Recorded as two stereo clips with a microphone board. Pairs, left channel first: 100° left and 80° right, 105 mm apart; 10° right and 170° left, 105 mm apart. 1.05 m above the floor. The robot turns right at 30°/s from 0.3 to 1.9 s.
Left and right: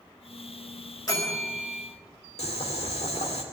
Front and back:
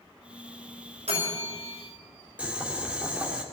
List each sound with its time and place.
1.1 s a bell: 160° left, 5.5 m; by 1.8 s straight behind, 5.5 m
2.4 s boiling: 95° left, 2 m